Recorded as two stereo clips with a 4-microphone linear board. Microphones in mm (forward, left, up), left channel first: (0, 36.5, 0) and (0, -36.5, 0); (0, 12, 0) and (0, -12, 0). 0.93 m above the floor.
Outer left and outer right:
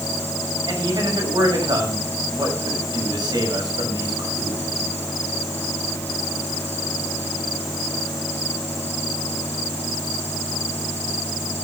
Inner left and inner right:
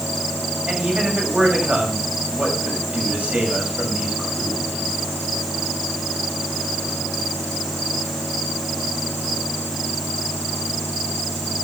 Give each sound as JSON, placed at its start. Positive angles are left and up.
{"t": 0.7, "sound": "a man speaking", "side_deg": -70, "distance_m": 6.5}